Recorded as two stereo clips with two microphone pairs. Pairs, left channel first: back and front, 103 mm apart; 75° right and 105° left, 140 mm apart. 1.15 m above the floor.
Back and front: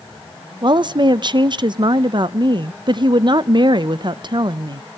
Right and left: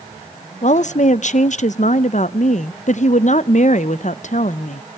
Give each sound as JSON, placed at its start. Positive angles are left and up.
{"t": 0.6, "sound": "a woman speaking", "azimuth_deg": -45, "distance_m": 0.5}